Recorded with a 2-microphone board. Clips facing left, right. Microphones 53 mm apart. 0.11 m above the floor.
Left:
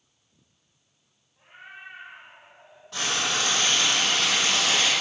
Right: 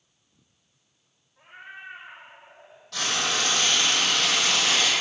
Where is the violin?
I don't hear a violin.